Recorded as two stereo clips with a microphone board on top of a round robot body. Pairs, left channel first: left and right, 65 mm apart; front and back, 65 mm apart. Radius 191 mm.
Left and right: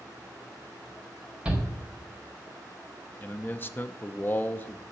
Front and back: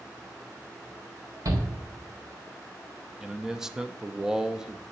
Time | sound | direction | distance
1.4 | a shout | 160° right | 2.5 m
3.2 | a man speaking | 105° left | 0.8 m